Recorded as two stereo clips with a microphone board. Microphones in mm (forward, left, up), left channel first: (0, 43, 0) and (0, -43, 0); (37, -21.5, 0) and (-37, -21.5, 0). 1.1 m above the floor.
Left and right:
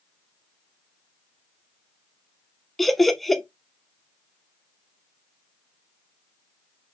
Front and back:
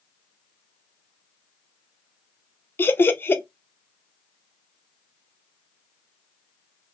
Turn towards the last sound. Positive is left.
turn(degrees=5)